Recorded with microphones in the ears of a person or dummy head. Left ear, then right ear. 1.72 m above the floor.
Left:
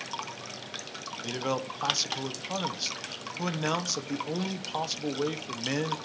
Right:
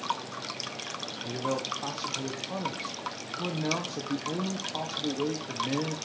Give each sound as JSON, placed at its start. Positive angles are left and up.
{"t": 1.2, "sound": "a man speaking", "side_deg": 60, "distance_m": 1.2}